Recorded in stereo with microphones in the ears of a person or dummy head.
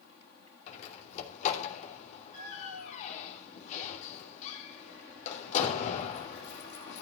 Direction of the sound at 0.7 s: 35° left (ahead or behind).